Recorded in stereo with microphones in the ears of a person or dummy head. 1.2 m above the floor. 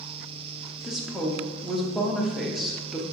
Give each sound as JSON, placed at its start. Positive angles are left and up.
{"t": 0.8, "sound": "a woman speaking", "side_deg": 0, "distance_m": 0.8}